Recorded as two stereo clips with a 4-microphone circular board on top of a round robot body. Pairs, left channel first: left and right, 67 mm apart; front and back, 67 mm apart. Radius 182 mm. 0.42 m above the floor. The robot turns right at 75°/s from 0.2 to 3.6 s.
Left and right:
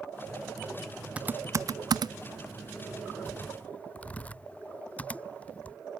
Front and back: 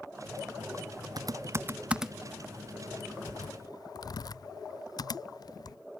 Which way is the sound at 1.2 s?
160° right.